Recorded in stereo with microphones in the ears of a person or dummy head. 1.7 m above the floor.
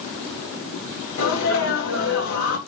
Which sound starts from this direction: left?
A sneeze, at 1.2 s.